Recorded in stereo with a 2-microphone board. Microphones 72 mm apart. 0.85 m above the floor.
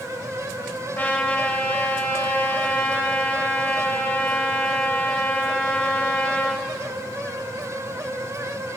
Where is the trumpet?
25° left (ahead or behind), 0.9 m.